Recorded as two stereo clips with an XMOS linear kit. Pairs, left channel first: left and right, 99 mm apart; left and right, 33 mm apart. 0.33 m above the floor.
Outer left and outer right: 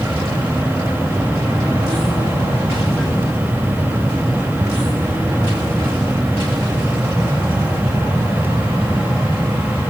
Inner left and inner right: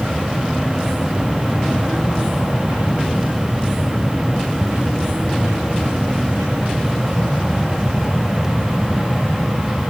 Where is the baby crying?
No baby crying in this recording.